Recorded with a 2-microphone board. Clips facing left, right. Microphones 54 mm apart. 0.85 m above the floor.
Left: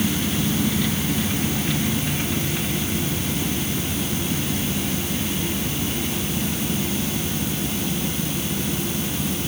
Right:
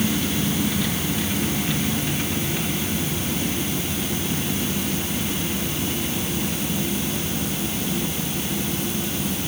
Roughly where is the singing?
I don't hear singing.